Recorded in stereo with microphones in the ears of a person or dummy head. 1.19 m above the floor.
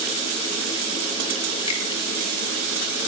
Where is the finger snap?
25° left (ahead or behind), 1.9 m.